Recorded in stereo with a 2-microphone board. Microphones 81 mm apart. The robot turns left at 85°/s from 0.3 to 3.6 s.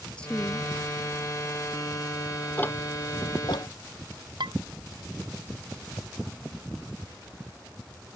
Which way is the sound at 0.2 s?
160° left.